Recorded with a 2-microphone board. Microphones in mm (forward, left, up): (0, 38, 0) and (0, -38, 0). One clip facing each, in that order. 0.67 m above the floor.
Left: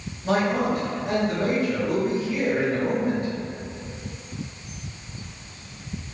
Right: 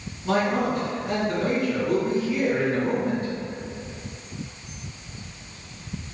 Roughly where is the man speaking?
Left.